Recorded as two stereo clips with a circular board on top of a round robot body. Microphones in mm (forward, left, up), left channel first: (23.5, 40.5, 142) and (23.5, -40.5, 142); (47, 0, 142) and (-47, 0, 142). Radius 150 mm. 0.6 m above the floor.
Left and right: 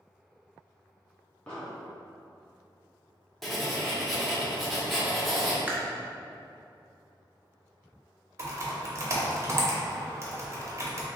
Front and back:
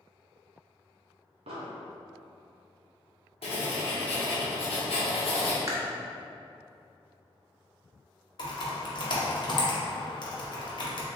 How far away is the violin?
No violin in this recording.